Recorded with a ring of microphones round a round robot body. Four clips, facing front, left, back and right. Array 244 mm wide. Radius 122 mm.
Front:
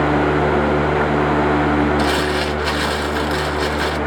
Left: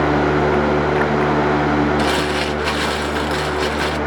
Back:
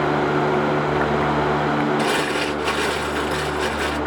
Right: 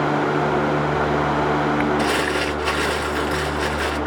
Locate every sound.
2.0 s crumpling: 55° left, 1.5 m